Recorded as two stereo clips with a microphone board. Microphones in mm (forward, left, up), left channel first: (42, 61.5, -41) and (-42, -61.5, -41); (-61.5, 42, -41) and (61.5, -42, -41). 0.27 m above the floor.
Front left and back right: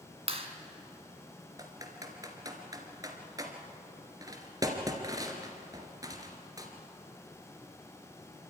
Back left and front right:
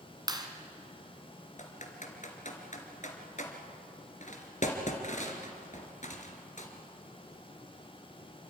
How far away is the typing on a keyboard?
About 2.5 m.